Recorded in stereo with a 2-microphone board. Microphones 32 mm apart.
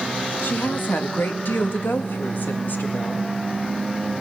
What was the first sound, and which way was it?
A woman speaking, 75° left (ahead or behind).